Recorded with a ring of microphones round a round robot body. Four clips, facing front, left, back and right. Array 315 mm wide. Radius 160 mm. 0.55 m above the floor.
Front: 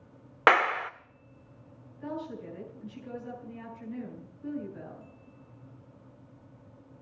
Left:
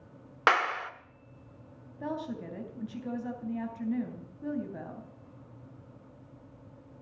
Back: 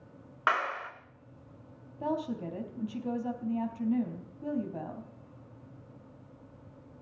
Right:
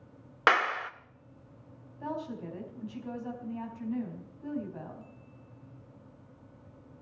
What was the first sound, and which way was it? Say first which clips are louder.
A clap: even, front 7 dB; 10° right.